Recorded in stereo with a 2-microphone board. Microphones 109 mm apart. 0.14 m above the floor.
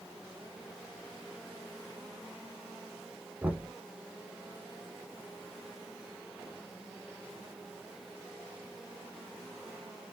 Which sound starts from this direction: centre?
Knocking, at 3.4 s.